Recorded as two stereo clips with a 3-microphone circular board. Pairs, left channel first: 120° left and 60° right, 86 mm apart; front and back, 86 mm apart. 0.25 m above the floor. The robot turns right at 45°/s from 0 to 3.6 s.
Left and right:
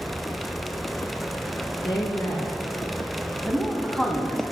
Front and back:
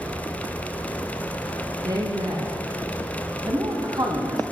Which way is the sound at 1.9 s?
140° left.